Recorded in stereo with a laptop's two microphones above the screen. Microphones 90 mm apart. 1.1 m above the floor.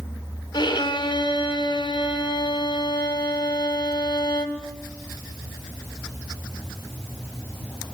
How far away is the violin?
About 2 m.